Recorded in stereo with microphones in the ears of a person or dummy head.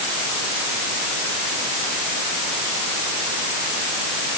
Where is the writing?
No writing in this recording.